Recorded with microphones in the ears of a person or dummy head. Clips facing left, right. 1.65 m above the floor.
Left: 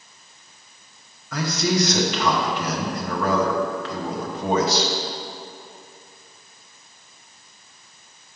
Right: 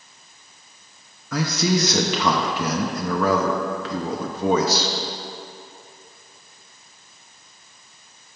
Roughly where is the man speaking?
Right.